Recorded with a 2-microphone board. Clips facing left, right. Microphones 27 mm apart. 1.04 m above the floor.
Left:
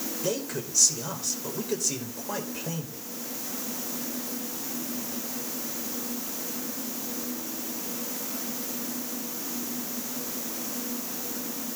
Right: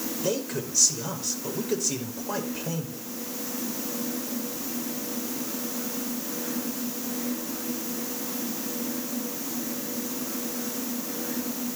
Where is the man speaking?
5° right (ahead or behind), 5 m.